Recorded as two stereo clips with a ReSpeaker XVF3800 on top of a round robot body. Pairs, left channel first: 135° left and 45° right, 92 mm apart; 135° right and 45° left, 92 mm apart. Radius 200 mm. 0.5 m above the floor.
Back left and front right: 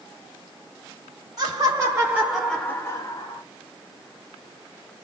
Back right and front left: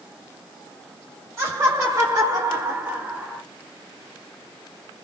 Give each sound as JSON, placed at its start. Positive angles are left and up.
{"t": 1.4, "sound": "laughter", "azimuth_deg": -5, "distance_m": 2.0}